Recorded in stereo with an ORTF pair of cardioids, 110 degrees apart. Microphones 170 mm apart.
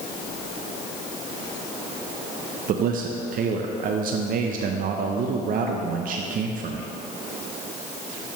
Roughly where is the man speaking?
Ahead right.